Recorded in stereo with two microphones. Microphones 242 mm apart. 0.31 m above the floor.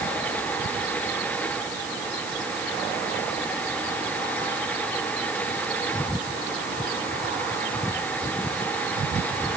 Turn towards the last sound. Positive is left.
No sound to turn to.